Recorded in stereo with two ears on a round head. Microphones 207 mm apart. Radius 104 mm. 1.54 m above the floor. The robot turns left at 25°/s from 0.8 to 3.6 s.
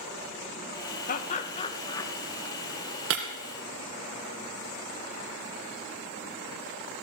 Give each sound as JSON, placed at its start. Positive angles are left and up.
{"t": 1.1, "sound": "laughter", "side_deg": 35, "distance_m": 2.0}
{"t": 3.1, "sound": "breaking glass", "side_deg": -65, "distance_m": 4.0}